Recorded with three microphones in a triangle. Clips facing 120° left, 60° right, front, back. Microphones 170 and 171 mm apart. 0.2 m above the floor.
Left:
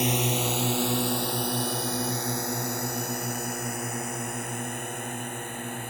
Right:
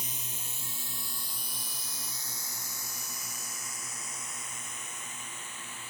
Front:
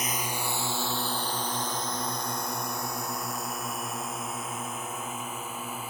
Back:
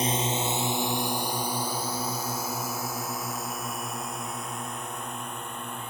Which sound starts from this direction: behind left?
A drone, at 0.0 s.